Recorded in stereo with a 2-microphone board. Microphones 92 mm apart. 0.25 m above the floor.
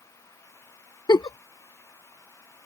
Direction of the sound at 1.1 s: 45° left (ahead or behind).